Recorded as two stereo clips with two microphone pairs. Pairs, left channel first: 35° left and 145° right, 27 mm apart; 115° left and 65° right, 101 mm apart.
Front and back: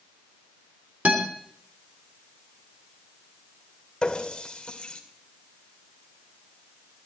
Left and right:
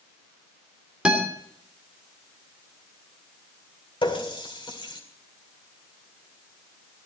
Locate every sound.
1.1 s a guitar: 145° right, 3 m
4.0 s a running tap: 90° left, 2.5 m